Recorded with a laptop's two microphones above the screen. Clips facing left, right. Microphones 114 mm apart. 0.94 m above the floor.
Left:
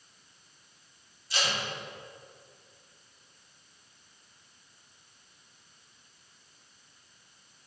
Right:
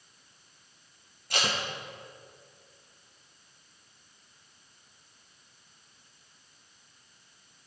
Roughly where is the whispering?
No whispering in this recording.